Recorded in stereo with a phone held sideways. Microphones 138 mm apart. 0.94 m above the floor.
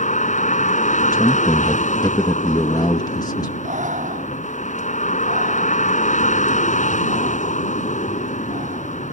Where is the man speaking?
30° left (ahead or behind).